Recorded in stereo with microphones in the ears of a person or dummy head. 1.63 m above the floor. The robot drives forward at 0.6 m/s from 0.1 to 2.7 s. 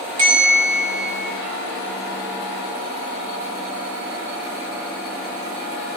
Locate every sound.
0.2 s a bell: 50° right (ahead or behind), 1.7 m